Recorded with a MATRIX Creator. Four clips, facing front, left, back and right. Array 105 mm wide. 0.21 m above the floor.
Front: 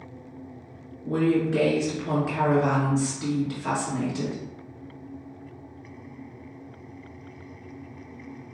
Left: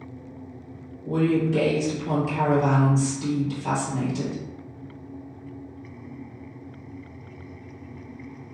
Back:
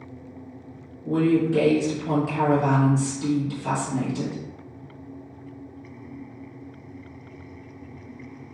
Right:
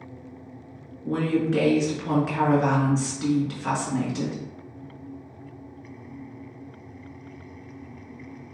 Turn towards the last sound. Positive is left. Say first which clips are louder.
# left 2 dB, back 2 dB
turn(degrees=-65)